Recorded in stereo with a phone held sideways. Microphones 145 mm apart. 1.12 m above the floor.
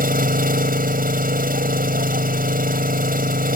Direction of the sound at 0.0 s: 85° right.